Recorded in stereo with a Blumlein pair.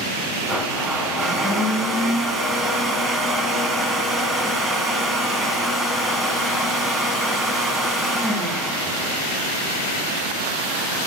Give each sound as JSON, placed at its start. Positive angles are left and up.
{"t": 0.5, "sound": "a blender", "azimuth_deg": -15, "distance_m": 1.6}